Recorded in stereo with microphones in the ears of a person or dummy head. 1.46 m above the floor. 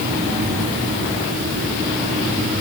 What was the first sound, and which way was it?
Only background noise.